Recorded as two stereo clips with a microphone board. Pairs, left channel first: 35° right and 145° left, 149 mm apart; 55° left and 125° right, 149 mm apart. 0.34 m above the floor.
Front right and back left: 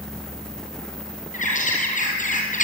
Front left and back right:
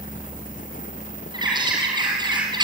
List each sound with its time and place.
1.3 s a bird: 65° right, 6 m